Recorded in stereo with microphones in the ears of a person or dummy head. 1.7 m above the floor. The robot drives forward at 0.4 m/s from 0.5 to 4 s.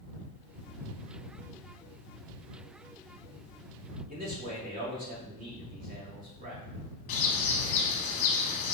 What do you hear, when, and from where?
4.1 s a man speaking: 45° right (ahead or behind), 1.3 m
7.1 s a bird: 40° left (ahead or behind), 0.9 m